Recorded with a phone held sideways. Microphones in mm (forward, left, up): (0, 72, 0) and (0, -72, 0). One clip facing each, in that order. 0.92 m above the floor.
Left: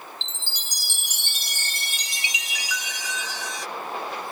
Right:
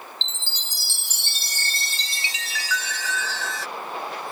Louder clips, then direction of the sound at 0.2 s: Right 1 dB; 15° left (ahead or behind).